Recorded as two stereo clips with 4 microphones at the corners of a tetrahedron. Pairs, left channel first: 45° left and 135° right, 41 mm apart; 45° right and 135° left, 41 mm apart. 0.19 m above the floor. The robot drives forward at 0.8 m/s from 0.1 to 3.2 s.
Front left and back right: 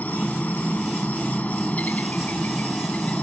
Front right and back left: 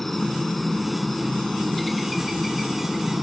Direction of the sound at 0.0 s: 35° left.